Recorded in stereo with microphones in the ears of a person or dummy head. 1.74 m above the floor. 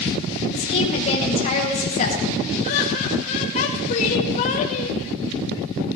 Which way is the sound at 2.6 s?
40° left (ahead or behind).